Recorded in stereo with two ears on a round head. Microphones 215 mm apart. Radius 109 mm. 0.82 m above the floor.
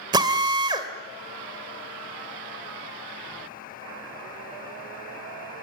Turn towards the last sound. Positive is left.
turn(degrees=-20)  # may be behind; listen again after turning